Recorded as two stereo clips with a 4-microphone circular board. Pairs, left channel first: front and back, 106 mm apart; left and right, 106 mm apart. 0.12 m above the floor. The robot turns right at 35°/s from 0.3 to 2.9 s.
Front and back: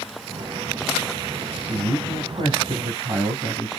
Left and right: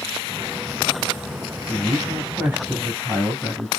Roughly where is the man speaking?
Behind.